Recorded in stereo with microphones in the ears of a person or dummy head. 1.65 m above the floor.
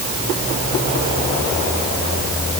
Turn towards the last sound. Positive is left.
No sound to turn to.